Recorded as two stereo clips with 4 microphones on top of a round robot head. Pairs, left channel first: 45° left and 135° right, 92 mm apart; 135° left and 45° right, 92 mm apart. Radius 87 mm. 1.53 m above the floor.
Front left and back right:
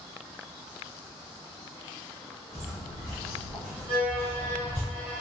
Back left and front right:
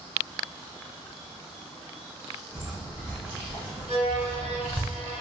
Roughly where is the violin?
Ahead right.